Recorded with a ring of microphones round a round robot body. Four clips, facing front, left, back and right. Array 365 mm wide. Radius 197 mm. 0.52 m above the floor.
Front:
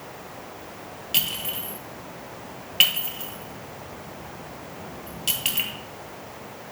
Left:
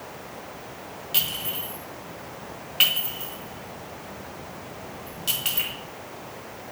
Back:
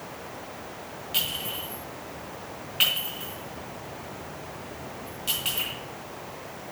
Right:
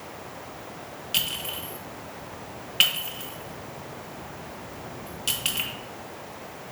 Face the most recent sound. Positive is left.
turn(degrees=-30)